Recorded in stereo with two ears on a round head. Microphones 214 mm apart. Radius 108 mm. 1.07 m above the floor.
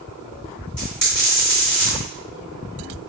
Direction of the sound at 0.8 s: 5° left (ahead or behind).